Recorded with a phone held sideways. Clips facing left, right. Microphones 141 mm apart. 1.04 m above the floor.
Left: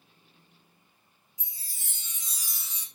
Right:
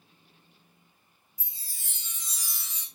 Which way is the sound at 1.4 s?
20° left (ahead or behind).